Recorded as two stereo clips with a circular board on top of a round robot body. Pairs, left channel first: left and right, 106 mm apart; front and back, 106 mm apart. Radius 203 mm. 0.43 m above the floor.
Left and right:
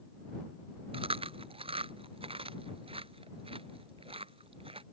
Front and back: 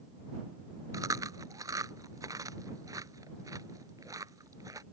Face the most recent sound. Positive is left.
turn(degrees=-120)